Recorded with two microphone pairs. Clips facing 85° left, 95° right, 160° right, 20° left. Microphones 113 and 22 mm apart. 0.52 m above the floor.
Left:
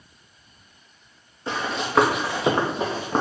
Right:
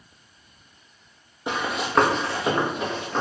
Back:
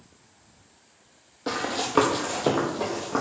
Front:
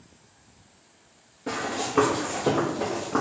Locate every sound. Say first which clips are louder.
1.5 s running footsteps: even, back 1 dB; 160° right, 0.8 m; by 3.2 s 115° left, 0.9 m